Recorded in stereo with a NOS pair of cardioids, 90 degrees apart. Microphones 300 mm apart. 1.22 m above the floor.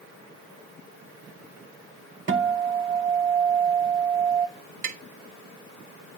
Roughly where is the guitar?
Ahead right.